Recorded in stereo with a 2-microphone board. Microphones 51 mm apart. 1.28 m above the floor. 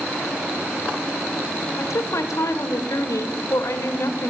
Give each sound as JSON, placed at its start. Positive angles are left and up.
{"t": 1.8, "sound": "a woman speaking", "side_deg": 80, "distance_m": 0.7}